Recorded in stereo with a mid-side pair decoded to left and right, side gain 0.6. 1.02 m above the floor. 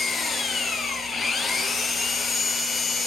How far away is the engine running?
About 6.5 m.